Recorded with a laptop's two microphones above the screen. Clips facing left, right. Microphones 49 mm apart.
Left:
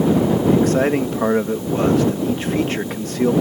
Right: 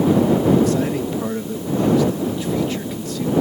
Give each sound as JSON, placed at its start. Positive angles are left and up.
{"t": 0.5, "sound": "a man speaking", "side_deg": 50}